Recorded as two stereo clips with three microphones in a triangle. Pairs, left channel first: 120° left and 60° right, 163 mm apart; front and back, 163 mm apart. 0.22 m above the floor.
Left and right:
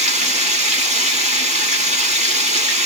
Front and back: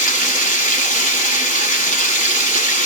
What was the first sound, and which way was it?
Running water, 25° right.